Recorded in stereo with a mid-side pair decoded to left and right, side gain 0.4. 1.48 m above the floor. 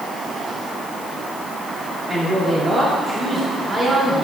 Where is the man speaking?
40° right, 3 m.